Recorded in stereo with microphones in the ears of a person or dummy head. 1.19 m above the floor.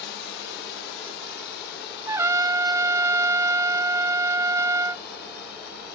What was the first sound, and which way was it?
A drone, 65° left (ahead or behind).